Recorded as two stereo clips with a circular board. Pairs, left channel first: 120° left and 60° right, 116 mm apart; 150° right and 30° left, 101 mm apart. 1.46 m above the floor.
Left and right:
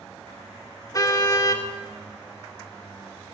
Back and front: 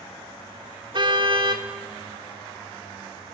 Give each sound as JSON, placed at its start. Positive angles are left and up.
{"t": 0.9, "sound": "a car horn", "azimuth_deg": 60, "distance_m": 2.5}